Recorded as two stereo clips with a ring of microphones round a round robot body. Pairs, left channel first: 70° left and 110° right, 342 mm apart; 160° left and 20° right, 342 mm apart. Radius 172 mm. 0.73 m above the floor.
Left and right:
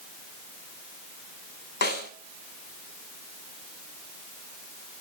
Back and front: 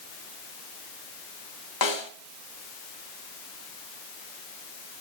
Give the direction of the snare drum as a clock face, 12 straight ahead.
8 o'clock.